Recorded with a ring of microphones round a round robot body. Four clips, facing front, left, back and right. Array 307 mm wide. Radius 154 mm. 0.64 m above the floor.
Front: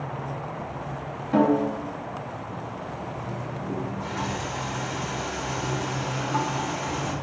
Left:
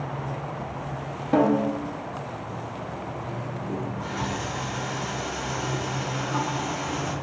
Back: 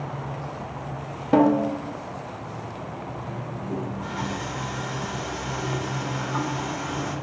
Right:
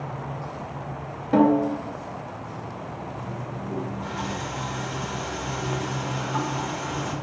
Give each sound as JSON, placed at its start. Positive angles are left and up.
{"t": 1.3, "sound": "a snare drum", "azimuth_deg": -175, "distance_m": 0.6}
{"t": 3.7, "sound": "a running tap", "azimuth_deg": 40, "distance_m": 1.3}